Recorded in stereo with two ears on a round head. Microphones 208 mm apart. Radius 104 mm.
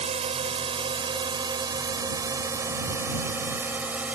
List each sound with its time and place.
0.0 s a drone: 30° right (ahead or behind); by 4.2 s 5° right (ahead or behind)